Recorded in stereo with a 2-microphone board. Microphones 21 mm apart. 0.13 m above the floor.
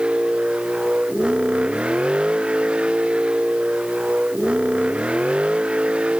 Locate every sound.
0.0 s a vehicle: 55° right (ahead or behind); by 6.2 s 60° right (ahead or behind)